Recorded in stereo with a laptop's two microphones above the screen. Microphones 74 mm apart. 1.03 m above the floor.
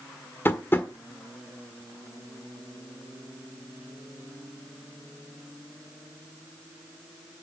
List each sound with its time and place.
0.5 s tapping: 30° left (ahead or behind), 1.3 m